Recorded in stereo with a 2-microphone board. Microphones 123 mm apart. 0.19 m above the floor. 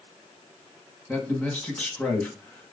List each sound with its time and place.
1.1 s a man speaking: 10° left (ahead or behind), 1.3 m